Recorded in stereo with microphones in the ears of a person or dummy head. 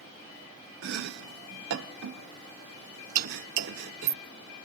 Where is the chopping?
70° right (ahead or behind), 1.3 m.